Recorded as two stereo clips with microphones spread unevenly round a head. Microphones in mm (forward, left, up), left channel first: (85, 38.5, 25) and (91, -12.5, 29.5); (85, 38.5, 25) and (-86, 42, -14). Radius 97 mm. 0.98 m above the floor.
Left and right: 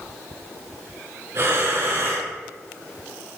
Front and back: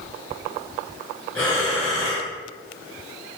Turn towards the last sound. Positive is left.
turn(degrees=-75)